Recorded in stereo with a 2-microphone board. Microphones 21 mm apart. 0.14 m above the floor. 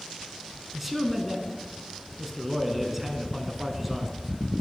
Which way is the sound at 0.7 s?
10° right (ahead or behind).